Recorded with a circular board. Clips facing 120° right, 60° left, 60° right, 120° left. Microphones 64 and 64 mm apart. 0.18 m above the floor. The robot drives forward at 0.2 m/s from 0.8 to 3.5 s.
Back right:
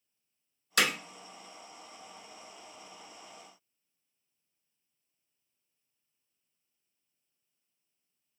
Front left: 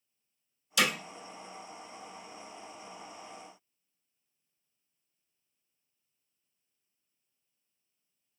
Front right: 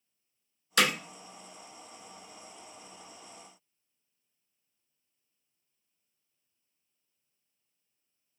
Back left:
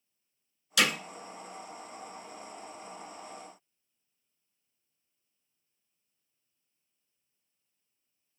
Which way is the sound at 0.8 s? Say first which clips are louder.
Even, front right 1 dB; 95° right.